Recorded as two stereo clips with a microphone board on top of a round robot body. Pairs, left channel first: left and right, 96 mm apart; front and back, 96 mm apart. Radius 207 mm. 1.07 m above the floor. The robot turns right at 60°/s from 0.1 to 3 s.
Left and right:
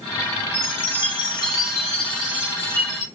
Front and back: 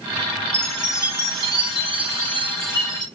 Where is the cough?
No cough in this recording.